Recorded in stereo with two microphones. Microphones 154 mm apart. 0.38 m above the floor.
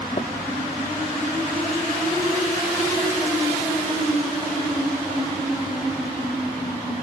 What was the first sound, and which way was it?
Tapping, 45° left (ahead or behind).